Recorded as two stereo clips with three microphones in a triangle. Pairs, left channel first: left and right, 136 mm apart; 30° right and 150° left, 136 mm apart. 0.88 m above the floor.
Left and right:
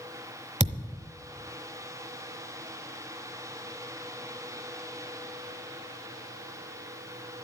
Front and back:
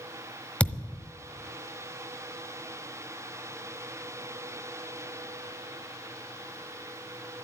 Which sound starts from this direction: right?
A thud, at 0.6 s.